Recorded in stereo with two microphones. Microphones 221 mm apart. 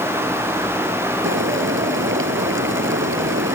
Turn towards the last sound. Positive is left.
turn(degrees=-65)  # may be behind; listen again after turning